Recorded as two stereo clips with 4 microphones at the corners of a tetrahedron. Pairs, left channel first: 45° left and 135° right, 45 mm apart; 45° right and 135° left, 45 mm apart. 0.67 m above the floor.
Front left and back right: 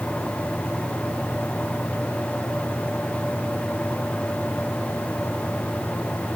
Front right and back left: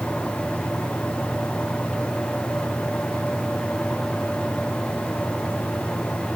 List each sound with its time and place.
Only background noise.